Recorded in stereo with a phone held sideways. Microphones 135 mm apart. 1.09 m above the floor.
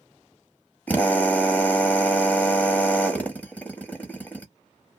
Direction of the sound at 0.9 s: 10° left (ahead or behind).